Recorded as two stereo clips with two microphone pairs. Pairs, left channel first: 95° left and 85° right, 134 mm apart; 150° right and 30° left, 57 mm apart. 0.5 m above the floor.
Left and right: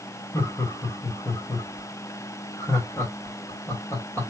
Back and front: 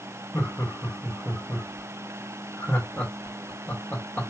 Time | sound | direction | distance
0.3 | laughter | 155° left | 1.7 m